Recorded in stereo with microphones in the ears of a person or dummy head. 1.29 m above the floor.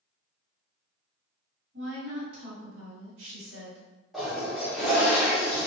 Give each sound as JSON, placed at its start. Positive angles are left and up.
{"t": 1.7, "sound": "a woman speaking", "side_deg": -70, "distance_m": 1.6}
{"t": 4.1, "sound": "a toilet flushing", "side_deg": -5, "distance_m": 0.6}